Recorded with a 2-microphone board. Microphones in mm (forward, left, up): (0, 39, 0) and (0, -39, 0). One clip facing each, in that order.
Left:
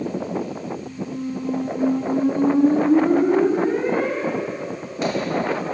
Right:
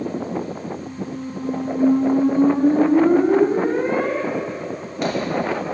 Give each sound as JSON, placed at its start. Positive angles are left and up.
{"t": 0.8, "sound": "a squeak", "side_deg": -50, "distance_m": 0.7}